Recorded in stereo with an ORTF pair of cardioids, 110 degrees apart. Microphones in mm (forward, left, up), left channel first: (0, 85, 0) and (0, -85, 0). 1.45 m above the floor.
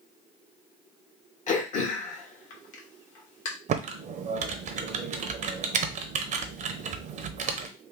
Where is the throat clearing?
50° left, 1.3 m.